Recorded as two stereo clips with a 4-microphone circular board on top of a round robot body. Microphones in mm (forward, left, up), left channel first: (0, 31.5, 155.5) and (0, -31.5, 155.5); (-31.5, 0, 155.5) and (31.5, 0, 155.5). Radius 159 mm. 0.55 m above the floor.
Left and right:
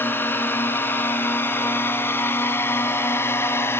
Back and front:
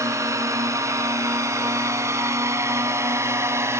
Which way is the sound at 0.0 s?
35° left.